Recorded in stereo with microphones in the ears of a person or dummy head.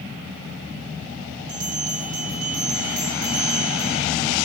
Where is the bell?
50° right (ahead or behind), 6 m.